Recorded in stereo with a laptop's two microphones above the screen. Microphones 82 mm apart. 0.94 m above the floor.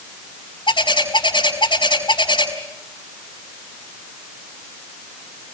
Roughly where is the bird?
Left.